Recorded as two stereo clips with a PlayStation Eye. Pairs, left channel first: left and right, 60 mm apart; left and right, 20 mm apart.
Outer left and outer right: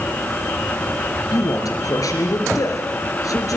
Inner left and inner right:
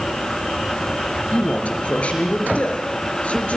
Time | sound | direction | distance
1.3 | a man speaking | 80° left | 4 m